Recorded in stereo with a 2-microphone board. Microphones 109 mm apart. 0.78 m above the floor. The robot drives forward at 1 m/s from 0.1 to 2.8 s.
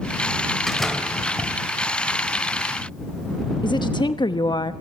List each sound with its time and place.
0.7 s a door slam: 5° left (ahead or behind), 2.0 m; by 1.6 s centre (ahead or behind), 3 m
3.6 s a woman speaking: 45° left (ahead or behind), 0.8 m